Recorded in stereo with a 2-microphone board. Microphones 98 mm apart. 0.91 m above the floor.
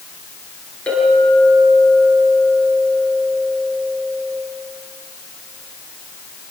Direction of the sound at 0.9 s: 10° left (ahead or behind).